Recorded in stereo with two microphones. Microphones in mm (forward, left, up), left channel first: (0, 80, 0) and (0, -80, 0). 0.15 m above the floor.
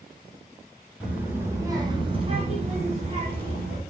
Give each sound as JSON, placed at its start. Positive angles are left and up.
{"t": 1.0, "sound": "a child speaking", "side_deg": -10, "distance_m": 1.1}